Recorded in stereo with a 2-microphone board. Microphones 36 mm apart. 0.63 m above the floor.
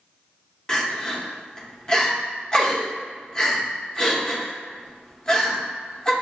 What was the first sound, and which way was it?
Crying, 20° left (ahead or behind).